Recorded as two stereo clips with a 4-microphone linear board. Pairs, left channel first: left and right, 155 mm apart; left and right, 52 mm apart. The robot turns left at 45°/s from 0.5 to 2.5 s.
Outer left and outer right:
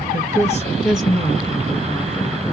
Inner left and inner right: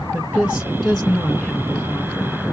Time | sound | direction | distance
0.1 | a woman speaking | 160° right | 3.5 m